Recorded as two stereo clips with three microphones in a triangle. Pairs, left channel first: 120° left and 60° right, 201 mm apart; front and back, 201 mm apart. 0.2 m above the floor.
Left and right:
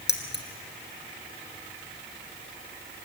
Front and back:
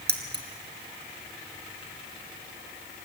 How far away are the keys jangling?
About 2 m.